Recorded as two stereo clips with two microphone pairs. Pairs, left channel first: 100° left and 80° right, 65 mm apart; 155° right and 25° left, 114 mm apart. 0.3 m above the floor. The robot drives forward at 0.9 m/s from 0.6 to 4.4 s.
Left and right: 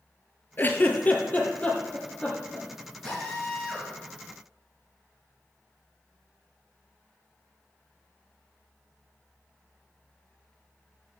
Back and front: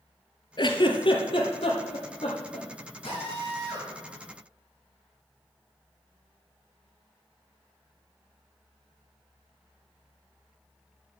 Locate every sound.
0.6 s a giggle: 160° left, 1.0 m; by 2.7 s 175° left, 3 m
3.0 s a drill: straight behind, 5 m